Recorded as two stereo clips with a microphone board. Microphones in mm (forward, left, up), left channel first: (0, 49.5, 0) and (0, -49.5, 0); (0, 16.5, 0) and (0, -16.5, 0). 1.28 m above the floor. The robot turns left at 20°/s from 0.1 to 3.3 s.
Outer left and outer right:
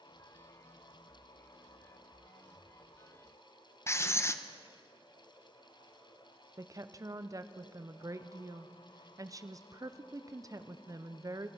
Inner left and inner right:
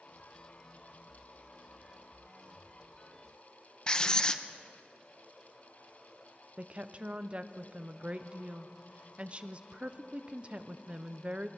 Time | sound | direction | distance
3.9 | writing | 25° left (ahead or behind) | 0.6 m
6.6 | a woman speaking | 35° right (ahead or behind) | 0.6 m